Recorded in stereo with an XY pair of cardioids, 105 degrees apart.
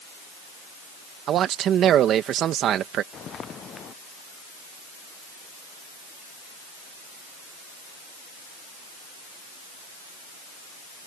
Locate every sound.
1.3 s a man speaking: 70° right
3.1 s footsteps: 50° left